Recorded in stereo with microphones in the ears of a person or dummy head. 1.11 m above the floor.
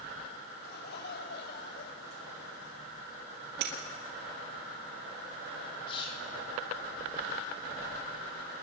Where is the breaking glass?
55° right (ahead or behind), 2.0 m.